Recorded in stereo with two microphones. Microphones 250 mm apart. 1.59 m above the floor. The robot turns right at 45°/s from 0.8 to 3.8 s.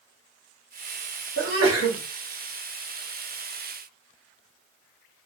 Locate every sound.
1.4 s a sneeze: 55° right (ahead or behind), 1.4 m; by 2.0 s 80° right, 1.4 m